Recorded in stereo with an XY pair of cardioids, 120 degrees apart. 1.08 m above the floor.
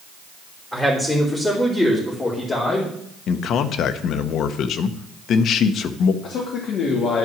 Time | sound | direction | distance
0.7 | a man speaking | 5° left | 3 m
3.3 | a man speaking | 60° left | 0.8 m
6.2 | a man speaking | 65° left | 2.5 m